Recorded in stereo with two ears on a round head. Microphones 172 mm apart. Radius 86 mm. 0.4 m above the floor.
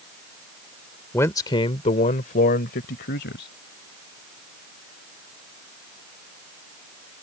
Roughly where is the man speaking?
Centre.